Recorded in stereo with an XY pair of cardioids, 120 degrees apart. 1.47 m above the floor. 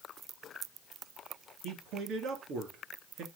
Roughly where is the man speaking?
Right.